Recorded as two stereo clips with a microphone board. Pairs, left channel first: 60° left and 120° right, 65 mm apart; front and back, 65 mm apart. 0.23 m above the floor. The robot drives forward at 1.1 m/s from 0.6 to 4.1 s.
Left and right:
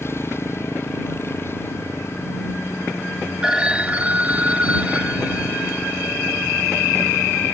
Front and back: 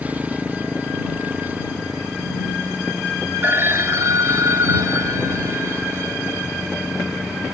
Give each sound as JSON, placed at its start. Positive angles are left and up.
{"t": 0.0, "sound": "a motorcycle", "azimuth_deg": 115}
{"t": 3.4, "sound": "a phone ringing", "azimuth_deg": 175}